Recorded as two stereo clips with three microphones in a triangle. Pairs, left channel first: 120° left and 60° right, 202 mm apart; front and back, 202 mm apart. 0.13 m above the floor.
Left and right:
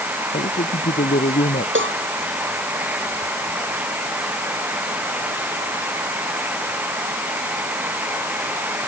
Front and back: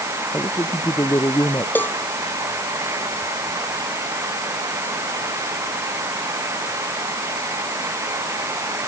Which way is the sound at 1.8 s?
80° right.